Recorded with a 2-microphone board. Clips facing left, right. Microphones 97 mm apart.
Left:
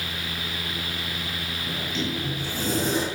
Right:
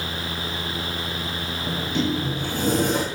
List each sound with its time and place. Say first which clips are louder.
1.7 s a sliding door: right 6 dB; 60° right (ahead or behind), 2.5 m